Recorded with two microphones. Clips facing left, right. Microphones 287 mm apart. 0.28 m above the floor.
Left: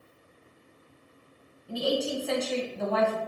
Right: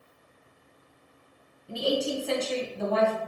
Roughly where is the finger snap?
I don't hear a finger snap.